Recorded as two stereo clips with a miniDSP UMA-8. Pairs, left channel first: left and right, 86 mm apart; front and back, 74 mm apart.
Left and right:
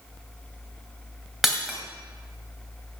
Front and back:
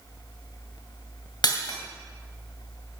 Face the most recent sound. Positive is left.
turn(degrees=0)